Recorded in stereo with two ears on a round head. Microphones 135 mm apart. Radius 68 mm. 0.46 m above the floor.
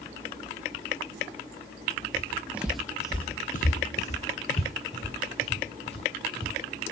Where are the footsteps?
20° right (ahead or behind), 1.6 m; by 6.5 s 40° left (ahead or behind), 5 m.